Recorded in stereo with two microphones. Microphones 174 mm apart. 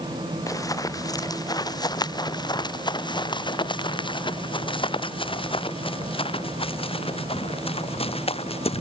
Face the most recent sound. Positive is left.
turn(degrees=35)  # may be behind; listen again after turning